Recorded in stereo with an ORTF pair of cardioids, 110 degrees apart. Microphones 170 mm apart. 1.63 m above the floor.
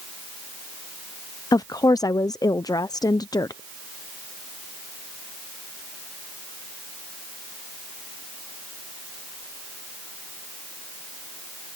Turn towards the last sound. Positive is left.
turn(degrees=25)